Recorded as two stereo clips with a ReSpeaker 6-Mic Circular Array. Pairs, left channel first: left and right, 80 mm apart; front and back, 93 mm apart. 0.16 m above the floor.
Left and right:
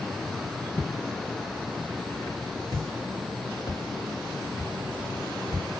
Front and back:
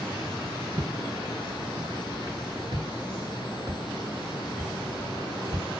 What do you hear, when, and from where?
0.8 s footsteps: 155° left, 1.8 m; by 5.7 s 120° left, 6.5 m